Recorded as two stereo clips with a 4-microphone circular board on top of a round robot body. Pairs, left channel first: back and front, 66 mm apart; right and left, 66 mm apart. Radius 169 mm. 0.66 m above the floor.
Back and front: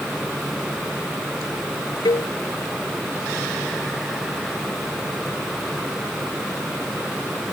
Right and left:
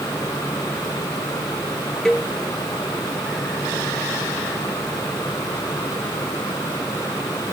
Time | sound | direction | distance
2.0 | a cowbell | 170° right | ?